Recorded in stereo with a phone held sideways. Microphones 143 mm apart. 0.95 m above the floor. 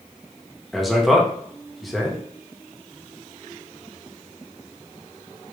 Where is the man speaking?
Centre (ahead or behind), 1.1 m.